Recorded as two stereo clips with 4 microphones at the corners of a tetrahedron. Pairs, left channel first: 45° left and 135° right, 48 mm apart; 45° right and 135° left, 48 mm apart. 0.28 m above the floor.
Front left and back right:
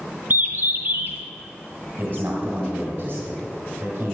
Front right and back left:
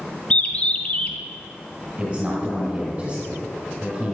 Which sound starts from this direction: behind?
A man speaking, at 2.0 s.